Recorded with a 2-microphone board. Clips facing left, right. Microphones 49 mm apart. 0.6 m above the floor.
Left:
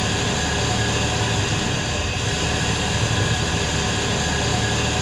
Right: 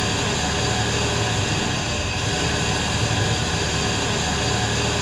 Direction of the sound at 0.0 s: 50° left (ahead or behind).